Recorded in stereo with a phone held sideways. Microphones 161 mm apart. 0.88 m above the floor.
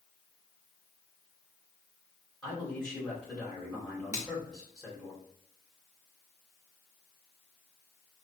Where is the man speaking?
5° left (ahead or behind), 2.5 m.